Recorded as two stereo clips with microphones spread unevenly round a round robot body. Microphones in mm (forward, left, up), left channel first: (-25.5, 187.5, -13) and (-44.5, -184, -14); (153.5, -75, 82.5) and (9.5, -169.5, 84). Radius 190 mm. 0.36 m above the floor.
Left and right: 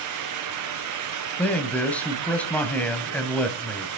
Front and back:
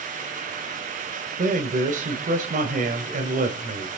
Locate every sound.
1.4 s a man speaking: 175° left, 2 m